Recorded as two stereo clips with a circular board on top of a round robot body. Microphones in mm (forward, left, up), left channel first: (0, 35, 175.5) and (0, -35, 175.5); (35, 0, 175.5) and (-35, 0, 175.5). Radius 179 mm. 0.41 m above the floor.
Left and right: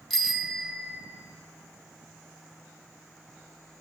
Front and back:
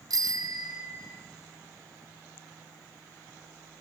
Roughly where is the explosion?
No explosion in this recording.